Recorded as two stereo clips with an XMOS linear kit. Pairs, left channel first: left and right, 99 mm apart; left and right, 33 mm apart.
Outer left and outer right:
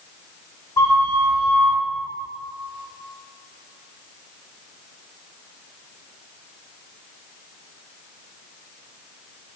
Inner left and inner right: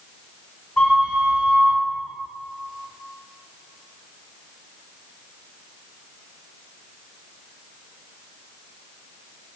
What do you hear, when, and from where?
0.8 s a flute: 35° left (ahead or behind), 1.5 m